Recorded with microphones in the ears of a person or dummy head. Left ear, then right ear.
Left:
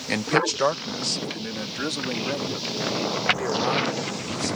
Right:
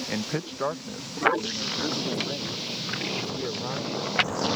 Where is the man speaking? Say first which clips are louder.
Left 15 dB; 80° left.